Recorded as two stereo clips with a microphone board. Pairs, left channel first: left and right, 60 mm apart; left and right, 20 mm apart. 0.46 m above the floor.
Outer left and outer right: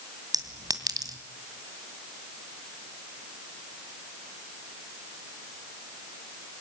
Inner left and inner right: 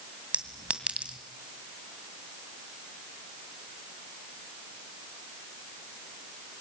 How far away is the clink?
About 2 m.